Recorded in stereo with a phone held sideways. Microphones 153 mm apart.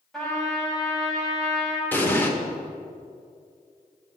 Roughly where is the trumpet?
Centre.